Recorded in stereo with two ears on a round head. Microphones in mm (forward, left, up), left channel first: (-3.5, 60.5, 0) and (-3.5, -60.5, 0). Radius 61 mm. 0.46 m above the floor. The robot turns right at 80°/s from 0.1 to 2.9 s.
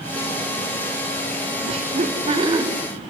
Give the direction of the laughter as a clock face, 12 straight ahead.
4 o'clock.